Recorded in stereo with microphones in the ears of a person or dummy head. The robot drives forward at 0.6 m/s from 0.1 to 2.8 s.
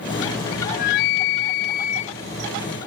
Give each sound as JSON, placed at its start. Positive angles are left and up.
{"t": 0.7, "sound": "a flute", "side_deg": 50}